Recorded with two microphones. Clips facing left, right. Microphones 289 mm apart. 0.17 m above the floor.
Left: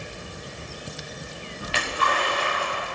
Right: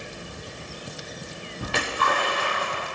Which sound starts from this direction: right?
A splash, at 1.6 s.